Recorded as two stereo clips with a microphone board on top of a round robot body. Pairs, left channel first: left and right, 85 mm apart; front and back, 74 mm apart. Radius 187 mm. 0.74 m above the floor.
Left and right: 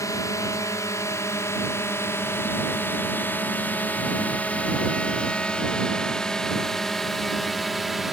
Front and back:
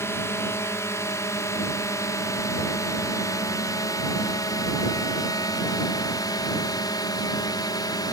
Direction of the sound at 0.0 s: 45° left.